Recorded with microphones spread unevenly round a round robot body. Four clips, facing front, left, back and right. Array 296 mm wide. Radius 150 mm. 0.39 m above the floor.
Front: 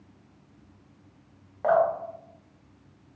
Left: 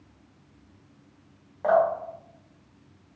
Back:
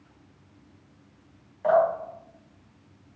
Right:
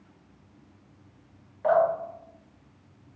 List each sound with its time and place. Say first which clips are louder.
1.6 s dripping: left 1 dB, back 1 dB; 35° left, 1.6 m